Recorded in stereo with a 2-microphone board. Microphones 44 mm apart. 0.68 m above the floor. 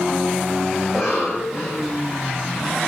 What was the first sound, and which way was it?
A cough, 5° right (ahead or behind).